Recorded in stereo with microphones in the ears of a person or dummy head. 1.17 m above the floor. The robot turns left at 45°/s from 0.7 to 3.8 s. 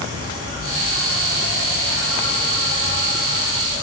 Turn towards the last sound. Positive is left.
turn(degrees=-170)